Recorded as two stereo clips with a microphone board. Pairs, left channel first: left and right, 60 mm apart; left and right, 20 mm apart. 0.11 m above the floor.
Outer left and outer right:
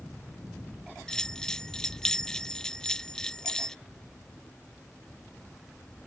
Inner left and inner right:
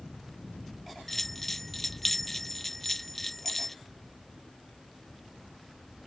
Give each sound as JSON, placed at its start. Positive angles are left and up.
{"t": 1.1, "sound": "a bell", "side_deg": 10}